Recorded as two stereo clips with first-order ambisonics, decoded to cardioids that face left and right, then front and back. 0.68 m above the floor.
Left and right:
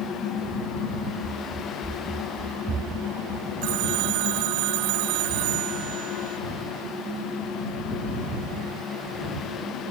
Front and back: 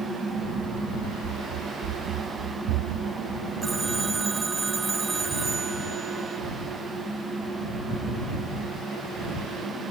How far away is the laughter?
I don't hear laughter.